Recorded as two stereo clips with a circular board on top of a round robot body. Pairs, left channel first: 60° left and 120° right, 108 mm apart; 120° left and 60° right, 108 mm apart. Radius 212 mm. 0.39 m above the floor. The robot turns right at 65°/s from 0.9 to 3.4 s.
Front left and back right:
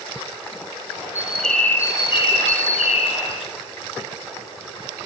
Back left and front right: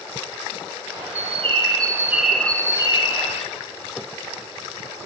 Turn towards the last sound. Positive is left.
turn(degrees=100)